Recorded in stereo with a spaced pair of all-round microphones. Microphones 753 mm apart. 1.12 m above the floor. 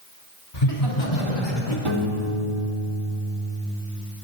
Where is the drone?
No drone in this recording.